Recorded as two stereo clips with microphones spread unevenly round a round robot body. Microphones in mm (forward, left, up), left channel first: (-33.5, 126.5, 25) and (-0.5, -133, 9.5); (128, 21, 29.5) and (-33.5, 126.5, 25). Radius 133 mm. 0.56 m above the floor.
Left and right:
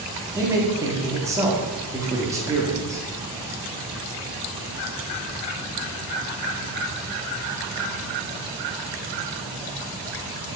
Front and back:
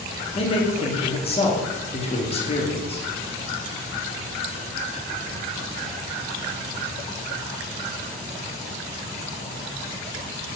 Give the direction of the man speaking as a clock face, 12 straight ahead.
1 o'clock.